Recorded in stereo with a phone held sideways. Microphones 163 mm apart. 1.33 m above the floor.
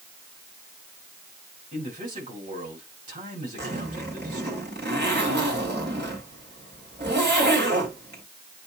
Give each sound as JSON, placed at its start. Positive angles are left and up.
{"t": 1.7, "sound": "a man speaking", "side_deg": -50, "distance_m": 5.5}
{"t": 3.6, "sound": "a zipper", "side_deg": -80, "distance_m": 3.0}